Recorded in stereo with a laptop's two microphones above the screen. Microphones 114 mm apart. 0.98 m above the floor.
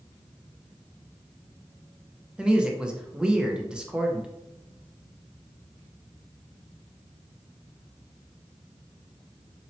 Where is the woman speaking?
10° right (ahead or behind), 0.7 m.